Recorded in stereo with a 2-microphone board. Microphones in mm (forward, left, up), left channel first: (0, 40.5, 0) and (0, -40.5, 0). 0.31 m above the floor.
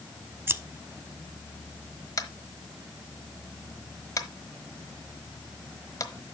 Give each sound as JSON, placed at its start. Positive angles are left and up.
{"t": 0.5, "sound": "scissors", "side_deg": -30, "distance_m": 0.5}
{"t": 2.2, "sound": "tapping", "side_deg": 45, "distance_m": 1.1}